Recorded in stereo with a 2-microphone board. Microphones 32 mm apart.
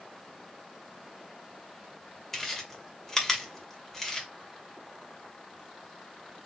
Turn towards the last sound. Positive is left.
turn(degrees=15)  # may be behind; listen again after turning